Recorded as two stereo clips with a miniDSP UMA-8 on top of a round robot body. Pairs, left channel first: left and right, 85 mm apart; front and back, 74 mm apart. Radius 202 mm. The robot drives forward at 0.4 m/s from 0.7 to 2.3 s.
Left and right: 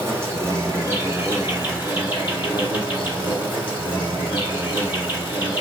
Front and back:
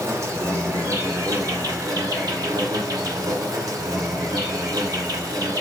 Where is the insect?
140° right, 2 m; by 5.6 s 155° right, 2.5 m.